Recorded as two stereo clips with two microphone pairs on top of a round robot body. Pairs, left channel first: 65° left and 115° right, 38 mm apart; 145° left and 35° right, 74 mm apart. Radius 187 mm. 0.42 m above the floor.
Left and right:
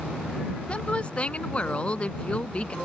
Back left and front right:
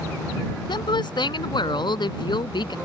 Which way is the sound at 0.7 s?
125° left.